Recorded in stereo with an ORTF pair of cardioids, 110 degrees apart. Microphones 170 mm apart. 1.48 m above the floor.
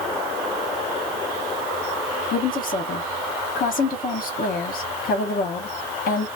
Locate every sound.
2.3 s a woman speaking: 55° left, 1.0 m